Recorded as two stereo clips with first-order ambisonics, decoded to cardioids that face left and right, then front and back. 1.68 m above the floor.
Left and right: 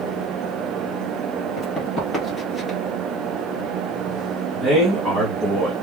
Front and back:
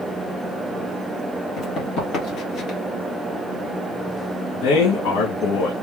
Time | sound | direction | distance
1.6 | running footsteps | 40° left | 2 m
4.5 | a man speaking | 5° right | 1.8 m